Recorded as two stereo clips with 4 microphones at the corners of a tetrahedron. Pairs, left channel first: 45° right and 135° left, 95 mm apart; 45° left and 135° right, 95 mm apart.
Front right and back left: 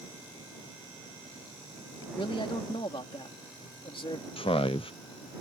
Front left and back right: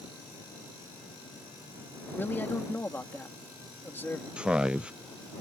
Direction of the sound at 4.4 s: 55° right.